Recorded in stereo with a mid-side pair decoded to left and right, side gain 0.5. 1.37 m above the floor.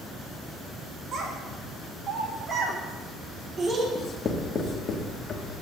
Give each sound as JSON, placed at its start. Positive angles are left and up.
{"t": 1.1, "sound": "a child speaking", "azimuth_deg": -55, "distance_m": 4.0}
{"t": 4.0, "sound": "writing", "azimuth_deg": 45, "distance_m": 1.6}